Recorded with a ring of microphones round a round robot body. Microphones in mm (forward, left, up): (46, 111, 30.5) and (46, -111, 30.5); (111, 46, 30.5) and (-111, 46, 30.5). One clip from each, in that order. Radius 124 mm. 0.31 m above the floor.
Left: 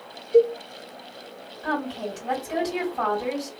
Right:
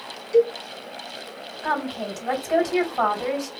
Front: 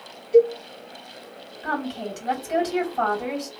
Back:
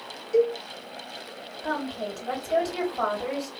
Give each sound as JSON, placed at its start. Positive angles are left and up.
{"t": 0.3, "sound": "a cowbell", "azimuth_deg": -100, "distance_m": 1.5}
{"t": 1.6, "sound": "a woman speaking", "azimuth_deg": -45, "distance_m": 2.5}